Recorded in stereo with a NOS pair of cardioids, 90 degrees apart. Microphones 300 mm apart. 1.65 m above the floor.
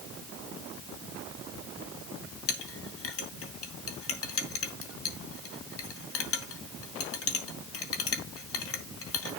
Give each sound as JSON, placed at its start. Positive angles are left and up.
{"t": 2.5, "sound": "a clink", "azimuth_deg": 50, "distance_m": 2.5}